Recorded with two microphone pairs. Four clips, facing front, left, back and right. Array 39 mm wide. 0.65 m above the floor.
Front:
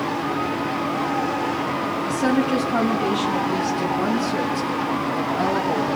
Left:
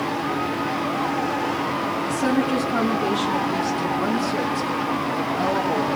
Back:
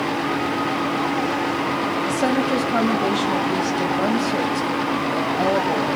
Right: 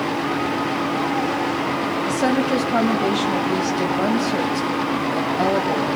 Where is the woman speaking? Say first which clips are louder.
Right 2 dB, front 1 dB; 130° right, 4 m.